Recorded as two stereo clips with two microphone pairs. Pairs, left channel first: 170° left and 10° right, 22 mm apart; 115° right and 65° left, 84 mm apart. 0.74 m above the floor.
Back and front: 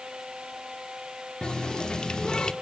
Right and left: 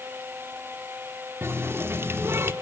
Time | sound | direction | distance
1.4 | a running tap | 125° left | 1.0 m